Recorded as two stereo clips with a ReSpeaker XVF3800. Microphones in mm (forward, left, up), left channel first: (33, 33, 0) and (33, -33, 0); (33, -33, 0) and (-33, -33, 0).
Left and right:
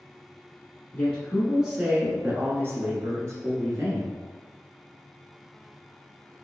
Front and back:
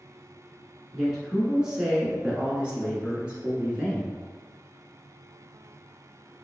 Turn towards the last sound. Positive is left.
turn(degrees=-110)